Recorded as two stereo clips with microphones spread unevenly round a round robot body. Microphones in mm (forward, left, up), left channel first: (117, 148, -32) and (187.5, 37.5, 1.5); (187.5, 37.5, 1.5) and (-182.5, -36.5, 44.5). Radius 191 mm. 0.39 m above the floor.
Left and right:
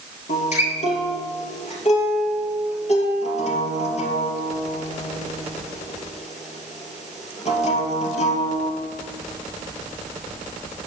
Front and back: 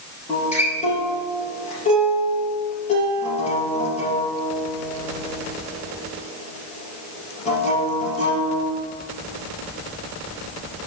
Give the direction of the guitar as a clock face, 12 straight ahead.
9 o'clock.